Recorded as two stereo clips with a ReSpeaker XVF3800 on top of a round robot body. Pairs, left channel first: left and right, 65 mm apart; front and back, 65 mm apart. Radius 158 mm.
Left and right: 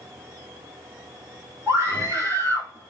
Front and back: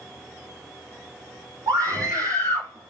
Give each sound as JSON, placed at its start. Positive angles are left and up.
{"t": 1.7, "sound": "a scream", "azimuth_deg": -150, "distance_m": 3.0}